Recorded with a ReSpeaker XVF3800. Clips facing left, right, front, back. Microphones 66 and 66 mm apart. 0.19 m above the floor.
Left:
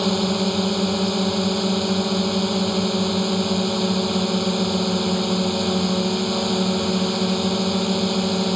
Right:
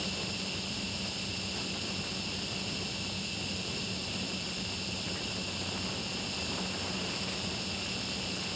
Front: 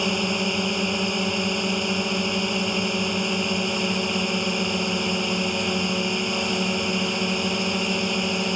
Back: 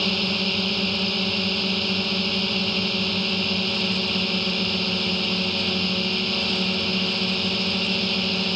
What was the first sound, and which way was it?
A drone, 75° left.